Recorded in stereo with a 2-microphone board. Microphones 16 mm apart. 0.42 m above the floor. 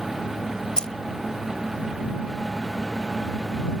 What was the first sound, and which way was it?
Keys jangling, 65° left (ahead or behind).